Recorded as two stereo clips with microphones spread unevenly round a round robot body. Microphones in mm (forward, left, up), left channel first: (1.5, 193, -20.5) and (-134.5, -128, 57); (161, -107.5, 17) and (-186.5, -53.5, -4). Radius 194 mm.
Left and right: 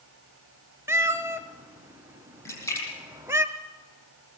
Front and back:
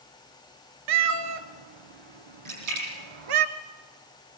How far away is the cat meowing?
About 1.4 m.